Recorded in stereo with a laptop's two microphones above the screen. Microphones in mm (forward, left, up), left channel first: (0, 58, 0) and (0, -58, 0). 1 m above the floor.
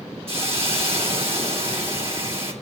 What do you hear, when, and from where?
0.3 s a hiss: 55° right (ahead or behind), 2.0 m